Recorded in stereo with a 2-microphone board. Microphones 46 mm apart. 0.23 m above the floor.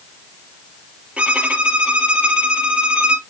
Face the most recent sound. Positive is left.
turn(degrees=-25)  # may be behind; listen again after turning